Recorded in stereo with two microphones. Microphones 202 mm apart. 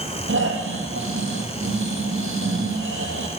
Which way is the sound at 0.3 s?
75° right (ahead or behind).